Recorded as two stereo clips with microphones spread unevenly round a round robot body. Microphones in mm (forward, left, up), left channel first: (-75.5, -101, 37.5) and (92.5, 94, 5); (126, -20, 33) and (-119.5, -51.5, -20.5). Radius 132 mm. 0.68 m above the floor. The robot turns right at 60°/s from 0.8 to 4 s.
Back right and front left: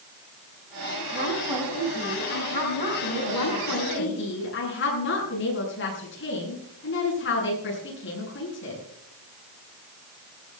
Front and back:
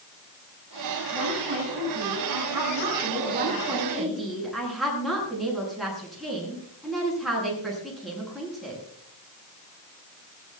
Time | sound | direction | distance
1.1 | a woman speaking | 100° left | 6 m
3.3 | a woman speaking | 125° right | 9 m